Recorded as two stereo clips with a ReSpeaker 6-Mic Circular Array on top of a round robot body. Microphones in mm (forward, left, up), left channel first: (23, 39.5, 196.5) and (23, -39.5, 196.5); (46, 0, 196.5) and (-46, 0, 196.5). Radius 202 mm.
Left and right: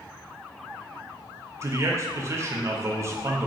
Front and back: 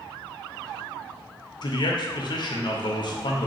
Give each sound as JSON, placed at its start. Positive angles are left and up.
{"t": 1.6, "sound": "a man speaking", "azimuth_deg": -35, "distance_m": 0.6}